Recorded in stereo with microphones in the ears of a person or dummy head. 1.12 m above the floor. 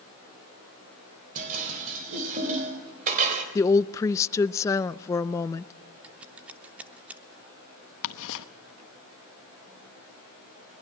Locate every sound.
1.4 s dishes clattering: 40° right (ahead or behind), 3.5 m
3.5 s a woman speaking: 20° left (ahead or behind), 0.5 m
6.0 s scissors: 15° right (ahead or behind), 0.7 m
8.0 s ticking: 65° left (ahead or behind), 1.0 m